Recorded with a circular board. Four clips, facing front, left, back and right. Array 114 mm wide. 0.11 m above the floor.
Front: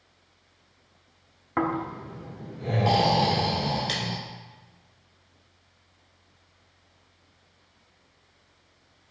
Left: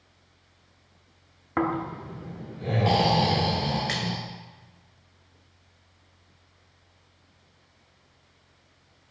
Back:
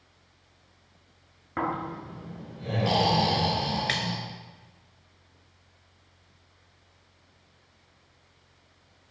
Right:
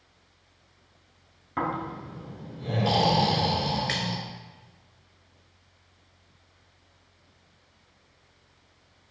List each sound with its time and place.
1.6 s snoring: 60° left, 0.8 m
3.9 s a splash: 175° right, 0.6 m